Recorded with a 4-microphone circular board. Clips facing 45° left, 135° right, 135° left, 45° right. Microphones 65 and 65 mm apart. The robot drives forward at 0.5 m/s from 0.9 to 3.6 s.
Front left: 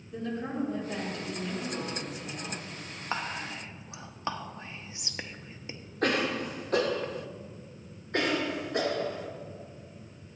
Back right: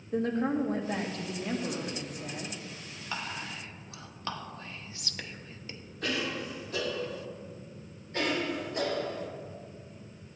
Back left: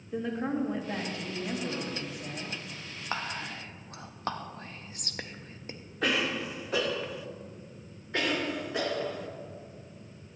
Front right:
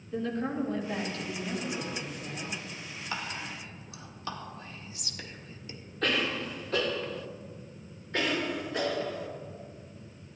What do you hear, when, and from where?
0.1 s a woman speaking: 150° right, 1.5 m; by 2.5 s 165° right, 2 m
3.1 s whispering: 90° left, 0.8 m; by 5.8 s 110° left, 0.8 m
6.0 s a cough: 55° left, 0.7 m
8.1 s a cough: 55° left, 2.5 m